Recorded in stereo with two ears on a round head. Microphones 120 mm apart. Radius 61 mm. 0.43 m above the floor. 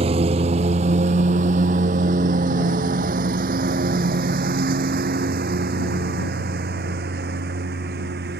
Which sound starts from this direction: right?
A lawn mower, at 0.0 s.